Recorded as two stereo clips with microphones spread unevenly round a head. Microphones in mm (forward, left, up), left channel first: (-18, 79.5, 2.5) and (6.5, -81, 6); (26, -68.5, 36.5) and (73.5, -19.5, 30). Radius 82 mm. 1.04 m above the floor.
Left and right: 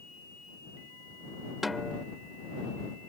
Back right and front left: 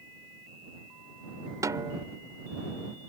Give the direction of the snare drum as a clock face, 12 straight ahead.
12 o'clock.